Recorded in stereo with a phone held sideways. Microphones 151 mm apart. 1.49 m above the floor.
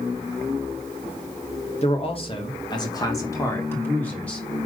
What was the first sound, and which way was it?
A man speaking, 40° left (ahead or behind).